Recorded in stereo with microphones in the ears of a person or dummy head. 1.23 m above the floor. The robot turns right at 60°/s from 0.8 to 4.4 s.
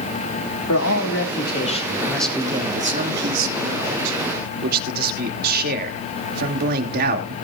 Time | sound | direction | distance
0.7 | a man speaking | 90° left | 2.5 m